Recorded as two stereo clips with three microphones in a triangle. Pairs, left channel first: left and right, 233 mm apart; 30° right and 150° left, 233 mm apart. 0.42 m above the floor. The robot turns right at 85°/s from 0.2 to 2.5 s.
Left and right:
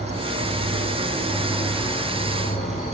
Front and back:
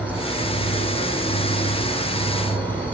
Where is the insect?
125° right, 2.5 m; by 3.0 s 70° left, 2.5 m.